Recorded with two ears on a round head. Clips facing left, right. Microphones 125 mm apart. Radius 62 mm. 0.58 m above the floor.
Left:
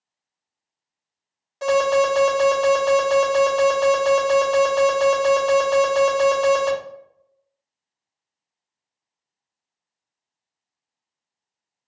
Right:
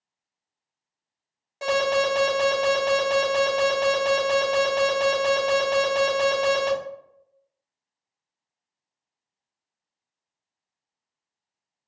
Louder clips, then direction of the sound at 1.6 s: Left 5 dB; 15° right (ahead or behind).